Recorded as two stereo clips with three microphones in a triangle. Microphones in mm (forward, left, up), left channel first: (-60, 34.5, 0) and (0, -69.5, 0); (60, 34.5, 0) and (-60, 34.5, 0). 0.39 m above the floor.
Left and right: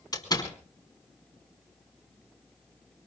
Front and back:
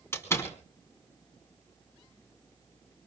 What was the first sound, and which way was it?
A door slam, 65° left.